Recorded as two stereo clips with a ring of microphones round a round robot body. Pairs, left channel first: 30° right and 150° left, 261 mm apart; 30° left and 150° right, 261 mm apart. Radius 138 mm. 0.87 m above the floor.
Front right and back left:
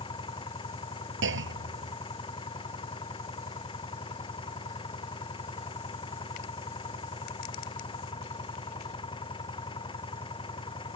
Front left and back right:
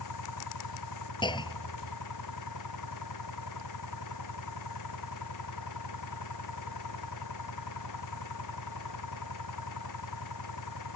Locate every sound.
0.0 s an engine running: 45° left
1.2 s a clunk: 105° left